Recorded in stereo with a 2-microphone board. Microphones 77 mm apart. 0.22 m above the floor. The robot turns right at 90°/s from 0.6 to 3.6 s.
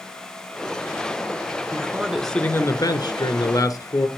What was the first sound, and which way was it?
A man speaking, 45° right.